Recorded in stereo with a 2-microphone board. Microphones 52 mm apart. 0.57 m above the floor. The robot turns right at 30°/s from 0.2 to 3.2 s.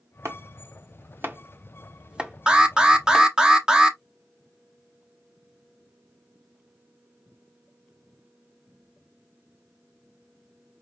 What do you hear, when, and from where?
0.2 s chopping: 60° right (ahead or behind), 0.9 m; by 3.3 s 5° left (ahead or behind), 0.9 m
2.5 s an alarm: 20° right (ahead or behind), 0.8 m; by 4.0 s 15° right (ahead or behind), 0.8 m